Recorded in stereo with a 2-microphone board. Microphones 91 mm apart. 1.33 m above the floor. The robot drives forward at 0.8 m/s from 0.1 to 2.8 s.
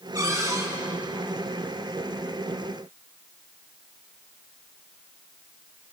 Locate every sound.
0.1 s a cupboard door: 35° right (ahead or behind), 4.5 m